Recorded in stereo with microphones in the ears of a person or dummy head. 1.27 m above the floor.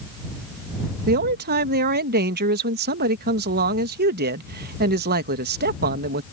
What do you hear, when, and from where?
1.1 s a man speaking: 45° right (ahead or behind)